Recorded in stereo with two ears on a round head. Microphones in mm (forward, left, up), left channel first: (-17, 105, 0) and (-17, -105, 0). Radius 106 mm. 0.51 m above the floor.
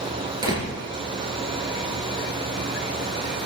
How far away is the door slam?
About 5.5 m.